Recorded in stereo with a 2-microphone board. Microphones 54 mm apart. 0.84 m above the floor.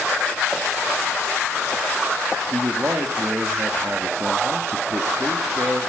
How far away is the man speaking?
About 1.4 m.